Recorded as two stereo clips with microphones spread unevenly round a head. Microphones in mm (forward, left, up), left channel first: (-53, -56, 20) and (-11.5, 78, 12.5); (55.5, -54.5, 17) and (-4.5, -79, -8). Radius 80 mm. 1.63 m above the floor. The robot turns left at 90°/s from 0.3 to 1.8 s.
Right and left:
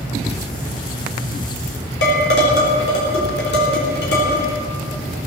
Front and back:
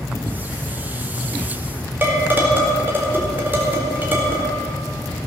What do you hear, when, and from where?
2.0 s dishes clattering: 95° right, 4 m